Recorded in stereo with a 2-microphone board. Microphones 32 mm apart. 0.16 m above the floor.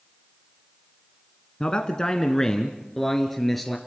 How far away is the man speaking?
About 1.5 m.